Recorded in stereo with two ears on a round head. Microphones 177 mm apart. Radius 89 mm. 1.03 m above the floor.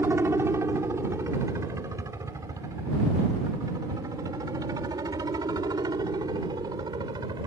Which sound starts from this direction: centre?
A helicopter, at 0.0 s.